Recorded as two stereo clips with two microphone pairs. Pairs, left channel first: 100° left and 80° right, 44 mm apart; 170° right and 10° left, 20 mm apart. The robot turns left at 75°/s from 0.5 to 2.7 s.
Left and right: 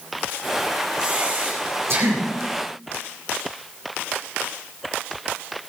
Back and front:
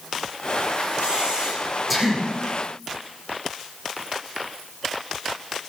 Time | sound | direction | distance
1.0 | breathing | 5° right | 7.5 m